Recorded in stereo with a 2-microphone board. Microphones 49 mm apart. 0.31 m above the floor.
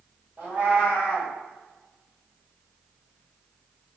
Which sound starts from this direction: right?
A cat meowing, at 0.4 s.